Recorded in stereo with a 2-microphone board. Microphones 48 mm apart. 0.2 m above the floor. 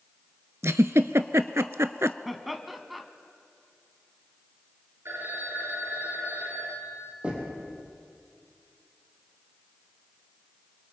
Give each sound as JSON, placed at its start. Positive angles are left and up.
{"t": 0.6, "sound": "a giggle", "side_deg": -70, "distance_m": 0.6}
{"t": 2.2, "sound": "laughter", "side_deg": 0, "distance_m": 1.5}
{"t": 5.0, "sound": "a phone ringing", "side_deg": -65, "distance_m": 2.5}
{"t": 7.2, "sound": "knocking", "side_deg": -25, "distance_m": 5.5}